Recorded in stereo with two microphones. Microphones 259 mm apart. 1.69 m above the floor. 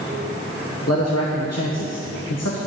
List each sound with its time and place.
0.9 s a man speaking: 65° left (ahead or behind), 1.3 m; by 2.6 s 70° left (ahead or behind), 1.4 m